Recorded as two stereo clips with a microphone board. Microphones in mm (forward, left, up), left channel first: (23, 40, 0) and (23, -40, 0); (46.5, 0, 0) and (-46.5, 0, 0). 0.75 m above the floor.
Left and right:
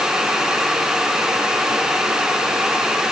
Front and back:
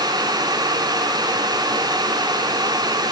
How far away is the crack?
No crack in this recording.